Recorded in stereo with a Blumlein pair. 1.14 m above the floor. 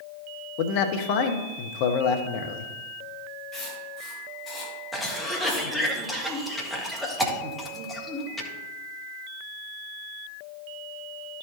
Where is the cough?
Straight ahead, 1.7 m.